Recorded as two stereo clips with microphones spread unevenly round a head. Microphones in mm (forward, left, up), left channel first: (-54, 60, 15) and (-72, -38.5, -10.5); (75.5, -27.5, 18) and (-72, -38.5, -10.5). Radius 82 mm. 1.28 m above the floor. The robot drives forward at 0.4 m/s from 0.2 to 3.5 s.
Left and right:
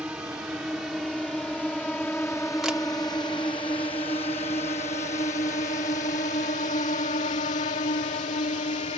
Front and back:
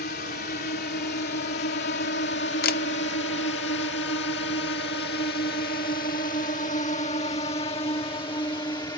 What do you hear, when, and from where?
0.0 s a drone: 15° right; by 9.0 s 75° left
2.6 s a camera shutter: 10° right